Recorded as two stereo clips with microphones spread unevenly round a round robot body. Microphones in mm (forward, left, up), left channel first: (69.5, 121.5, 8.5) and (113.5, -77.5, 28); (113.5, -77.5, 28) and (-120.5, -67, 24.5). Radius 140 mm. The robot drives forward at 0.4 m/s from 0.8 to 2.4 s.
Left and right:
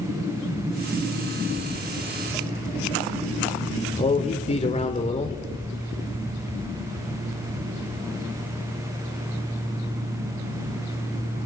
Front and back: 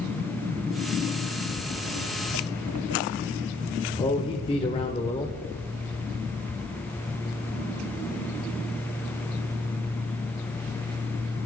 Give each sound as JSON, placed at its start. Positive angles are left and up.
{"t": 1.5, "sound": "footsteps", "azimuth_deg": -40, "distance_m": 0.7}
{"t": 4.0, "sound": "a man speaking", "azimuth_deg": 60, "distance_m": 1.3}